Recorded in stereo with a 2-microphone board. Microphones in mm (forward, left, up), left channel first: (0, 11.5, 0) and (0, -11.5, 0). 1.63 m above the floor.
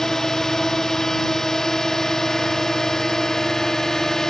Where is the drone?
20° left (ahead or behind).